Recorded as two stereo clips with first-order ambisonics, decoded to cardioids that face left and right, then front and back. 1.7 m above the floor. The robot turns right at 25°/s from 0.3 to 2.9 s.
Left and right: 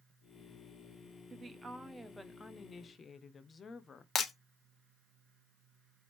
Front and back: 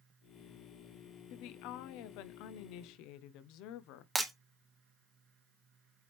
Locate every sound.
1.3 s a woman speaking: 20° right, 0.8 m; by 4.0 s 20° left, 0.8 m
4.2 s breaking glass: 105° left, 0.9 m